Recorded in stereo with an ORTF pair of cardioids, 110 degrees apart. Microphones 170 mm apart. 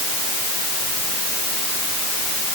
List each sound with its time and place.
Only background noise.